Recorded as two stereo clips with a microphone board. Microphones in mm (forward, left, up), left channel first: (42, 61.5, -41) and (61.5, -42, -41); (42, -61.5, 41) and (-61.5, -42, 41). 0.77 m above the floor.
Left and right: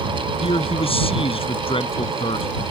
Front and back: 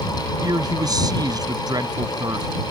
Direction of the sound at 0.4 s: 120° left.